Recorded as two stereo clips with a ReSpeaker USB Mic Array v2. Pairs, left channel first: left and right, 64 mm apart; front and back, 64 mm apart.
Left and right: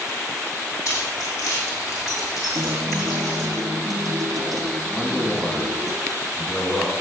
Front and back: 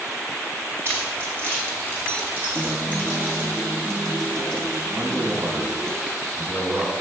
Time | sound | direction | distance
0.8 | keys jangling | 125° left | 5 m
2.5 | a guitar | 80° right | 3 m
4.9 | a man speaking | 150° left | 2.5 m